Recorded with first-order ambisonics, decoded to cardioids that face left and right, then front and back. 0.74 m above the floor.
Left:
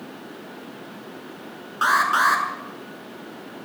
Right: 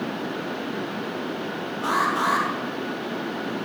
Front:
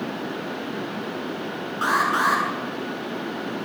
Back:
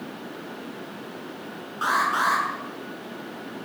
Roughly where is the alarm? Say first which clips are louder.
Left 5 dB, front 2 dB; left.